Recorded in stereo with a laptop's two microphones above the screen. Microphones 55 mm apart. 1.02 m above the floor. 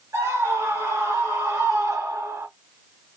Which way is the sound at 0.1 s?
85° right.